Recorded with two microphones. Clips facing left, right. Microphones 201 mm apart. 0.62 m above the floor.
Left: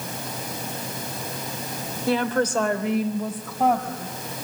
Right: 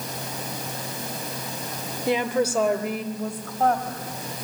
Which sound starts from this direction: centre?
A woman speaking, at 2.1 s.